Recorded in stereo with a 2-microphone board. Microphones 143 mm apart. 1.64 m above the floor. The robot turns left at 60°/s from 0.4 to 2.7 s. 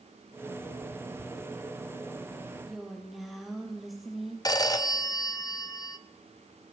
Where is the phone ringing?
25° left (ahead or behind), 0.5 m.